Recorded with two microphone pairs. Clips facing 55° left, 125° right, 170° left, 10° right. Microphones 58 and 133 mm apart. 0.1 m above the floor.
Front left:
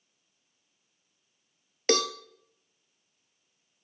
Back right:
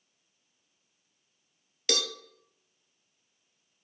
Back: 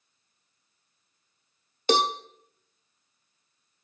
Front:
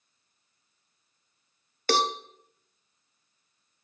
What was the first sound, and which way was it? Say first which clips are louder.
A cowbell: front left 6 dB, back 2 dB; 100° left.